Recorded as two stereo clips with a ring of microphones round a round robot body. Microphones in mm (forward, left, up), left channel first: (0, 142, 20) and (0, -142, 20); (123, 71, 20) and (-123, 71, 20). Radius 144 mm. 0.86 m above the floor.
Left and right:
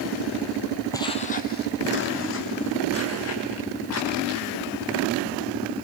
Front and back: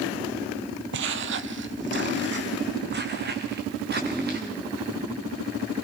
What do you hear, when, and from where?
0.9 s footsteps: 165° left, 1.1 m; by 4.5 s 130° left, 5.5 m